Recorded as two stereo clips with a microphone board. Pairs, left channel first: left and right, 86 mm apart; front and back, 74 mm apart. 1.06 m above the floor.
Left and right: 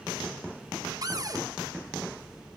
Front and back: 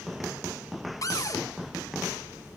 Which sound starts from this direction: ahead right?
A cupboard door, at 1.0 s.